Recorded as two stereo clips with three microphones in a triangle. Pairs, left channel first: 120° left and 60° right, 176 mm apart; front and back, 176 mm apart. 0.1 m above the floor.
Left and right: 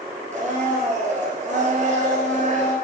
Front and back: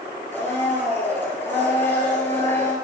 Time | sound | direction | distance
0.3 | a blender | 75° right | 2 m